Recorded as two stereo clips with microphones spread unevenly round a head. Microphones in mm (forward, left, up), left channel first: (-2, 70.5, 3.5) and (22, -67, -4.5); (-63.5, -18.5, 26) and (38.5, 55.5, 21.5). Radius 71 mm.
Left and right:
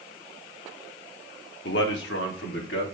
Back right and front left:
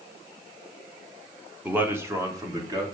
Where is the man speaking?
115° left, 1.8 m; by 2.9 s 95° left, 3.5 m.